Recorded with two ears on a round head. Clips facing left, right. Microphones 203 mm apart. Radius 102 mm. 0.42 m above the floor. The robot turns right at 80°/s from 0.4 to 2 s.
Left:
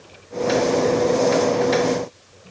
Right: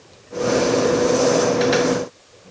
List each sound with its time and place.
Only background noise.